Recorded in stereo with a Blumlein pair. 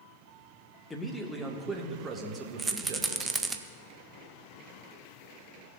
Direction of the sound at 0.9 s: 10° left.